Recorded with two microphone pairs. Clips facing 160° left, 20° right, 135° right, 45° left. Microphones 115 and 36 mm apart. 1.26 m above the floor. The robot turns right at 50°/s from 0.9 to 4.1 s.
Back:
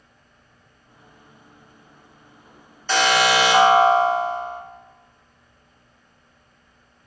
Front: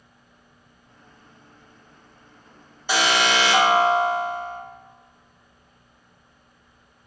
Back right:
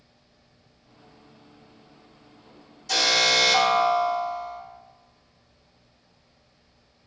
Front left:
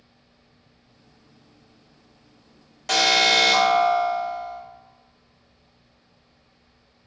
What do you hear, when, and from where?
2.9 s an alarm: 55° left, 2.0 m; by 4.6 s 120° left, 2.0 m